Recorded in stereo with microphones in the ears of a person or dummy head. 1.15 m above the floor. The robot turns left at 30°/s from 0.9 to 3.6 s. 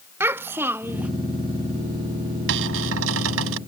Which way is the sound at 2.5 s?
65° right.